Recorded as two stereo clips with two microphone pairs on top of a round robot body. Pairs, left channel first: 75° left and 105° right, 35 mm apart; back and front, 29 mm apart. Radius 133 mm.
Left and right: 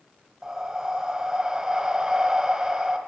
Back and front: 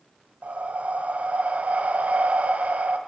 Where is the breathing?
30° right, 1.5 m.